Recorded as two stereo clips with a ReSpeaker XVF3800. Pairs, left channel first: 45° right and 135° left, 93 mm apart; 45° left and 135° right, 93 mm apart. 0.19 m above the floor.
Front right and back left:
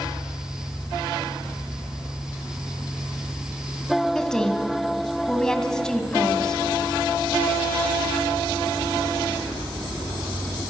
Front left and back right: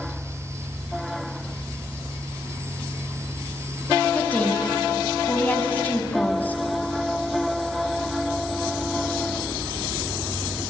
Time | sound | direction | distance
4.2 | a woman speaking | 20° left | 1.3 m